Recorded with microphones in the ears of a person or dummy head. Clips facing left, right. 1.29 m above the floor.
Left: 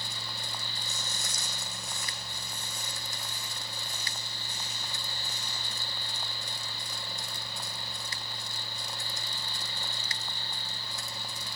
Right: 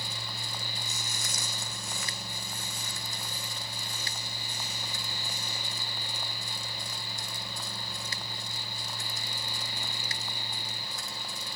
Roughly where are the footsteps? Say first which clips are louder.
Right 1 dB; right.